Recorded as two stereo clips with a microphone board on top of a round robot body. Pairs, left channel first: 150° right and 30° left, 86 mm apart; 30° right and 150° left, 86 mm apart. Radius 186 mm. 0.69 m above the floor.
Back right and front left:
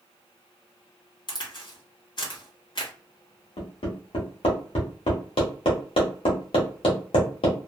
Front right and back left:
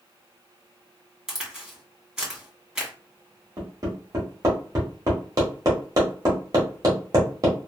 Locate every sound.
1.3 s a crack: 130° right, 1.9 m
3.6 s hammering: 155° right, 1.4 m